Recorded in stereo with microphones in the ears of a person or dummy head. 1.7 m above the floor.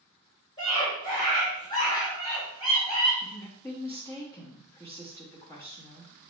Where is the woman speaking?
10° left (ahead or behind), 0.9 m.